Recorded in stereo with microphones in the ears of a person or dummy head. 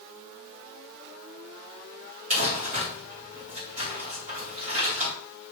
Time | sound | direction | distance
2.3 | crumpling | 40° right (ahead or behind) | 1.9 m